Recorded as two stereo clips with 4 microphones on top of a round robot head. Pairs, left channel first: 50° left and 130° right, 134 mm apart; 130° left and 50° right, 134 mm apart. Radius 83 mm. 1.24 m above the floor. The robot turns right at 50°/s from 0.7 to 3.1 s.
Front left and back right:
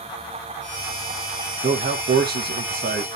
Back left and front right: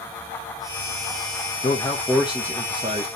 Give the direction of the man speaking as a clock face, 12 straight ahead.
6 o'clock.